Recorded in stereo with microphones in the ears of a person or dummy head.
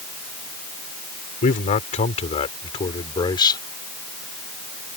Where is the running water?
I don't hear running water.